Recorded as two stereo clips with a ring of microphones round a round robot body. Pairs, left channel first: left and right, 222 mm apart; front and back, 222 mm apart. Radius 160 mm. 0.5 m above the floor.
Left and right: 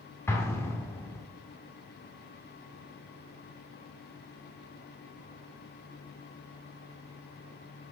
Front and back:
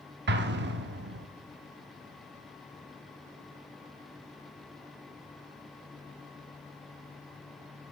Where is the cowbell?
I don't hear a cowbell.